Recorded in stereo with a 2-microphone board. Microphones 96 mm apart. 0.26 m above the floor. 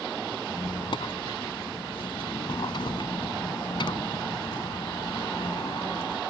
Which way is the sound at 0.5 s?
60° left (ahead or behind).